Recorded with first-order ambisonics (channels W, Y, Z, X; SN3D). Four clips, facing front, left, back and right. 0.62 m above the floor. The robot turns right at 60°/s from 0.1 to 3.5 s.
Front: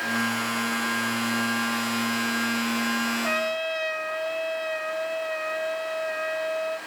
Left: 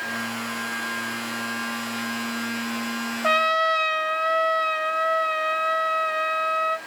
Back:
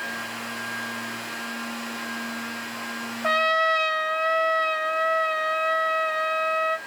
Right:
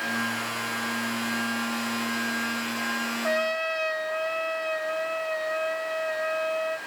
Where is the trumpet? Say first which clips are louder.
Left 8 dB, back 5 dB; 120° left, 1.2 m; by 6.8 s 135° left, 1.2 m.